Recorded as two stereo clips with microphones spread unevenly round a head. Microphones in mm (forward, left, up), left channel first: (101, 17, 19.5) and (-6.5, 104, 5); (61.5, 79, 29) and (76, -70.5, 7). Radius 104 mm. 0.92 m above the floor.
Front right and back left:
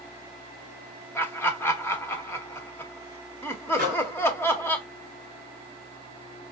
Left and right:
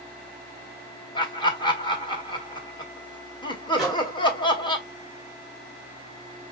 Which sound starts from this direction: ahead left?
Laughter, at 1.1 s.